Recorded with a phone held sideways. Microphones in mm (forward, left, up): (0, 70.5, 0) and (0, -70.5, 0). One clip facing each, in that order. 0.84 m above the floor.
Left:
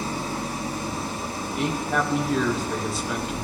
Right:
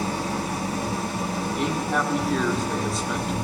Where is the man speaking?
Centre (ahead or behind), 1.7 m.